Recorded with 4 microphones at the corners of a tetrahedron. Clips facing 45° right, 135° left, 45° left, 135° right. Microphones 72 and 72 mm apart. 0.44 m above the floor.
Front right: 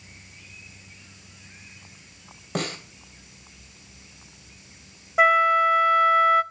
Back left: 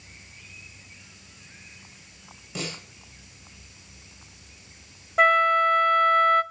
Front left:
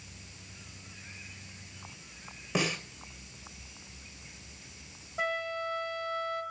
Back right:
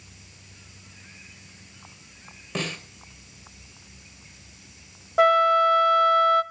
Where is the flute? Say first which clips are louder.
Front right 1 dB, back right 16 dB; 130° right, 0.6 m.